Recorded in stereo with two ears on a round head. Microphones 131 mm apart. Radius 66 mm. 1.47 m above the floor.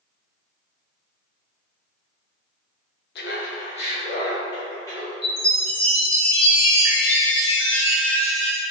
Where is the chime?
40° left (ahead or behind), 1.7 m.